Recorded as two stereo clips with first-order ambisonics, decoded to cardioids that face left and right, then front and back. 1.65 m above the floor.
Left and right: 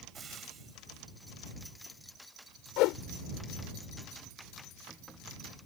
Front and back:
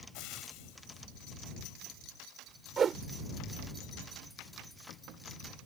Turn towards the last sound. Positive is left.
turn(degrees=115)